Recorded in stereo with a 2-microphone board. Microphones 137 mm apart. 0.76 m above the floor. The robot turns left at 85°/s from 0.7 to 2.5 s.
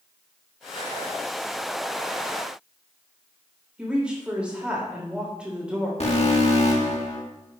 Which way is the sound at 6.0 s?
50° left (ahead or behind).